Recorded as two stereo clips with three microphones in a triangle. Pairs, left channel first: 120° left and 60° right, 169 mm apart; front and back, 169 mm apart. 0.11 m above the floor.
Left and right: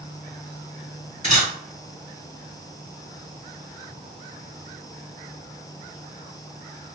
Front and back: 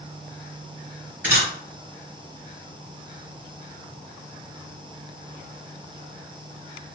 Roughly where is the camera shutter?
Behind left.